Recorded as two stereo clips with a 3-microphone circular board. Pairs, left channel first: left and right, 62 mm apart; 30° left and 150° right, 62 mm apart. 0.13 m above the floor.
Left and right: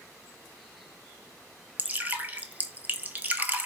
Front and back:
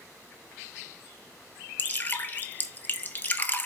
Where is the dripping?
30° right, 0.6 m.